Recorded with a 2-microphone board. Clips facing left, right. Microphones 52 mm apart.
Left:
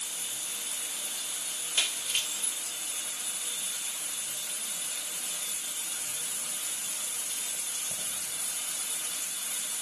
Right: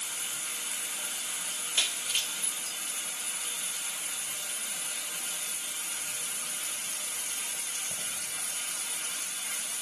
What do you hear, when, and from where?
0.0 s running water: 55° right (ahead or behind), 3 m
1.8 s breaking glass: 10° left (ahead or behind), 0.7 m